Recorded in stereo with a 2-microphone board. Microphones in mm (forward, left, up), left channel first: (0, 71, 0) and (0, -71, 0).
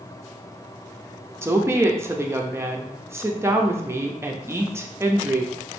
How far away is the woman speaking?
About 0.5 m.